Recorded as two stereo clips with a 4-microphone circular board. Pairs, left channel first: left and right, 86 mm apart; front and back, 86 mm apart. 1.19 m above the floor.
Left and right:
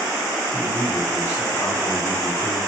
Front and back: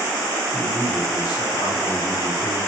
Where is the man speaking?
35° left, 4.5 m; by 2.6 s 20° left, 3 m.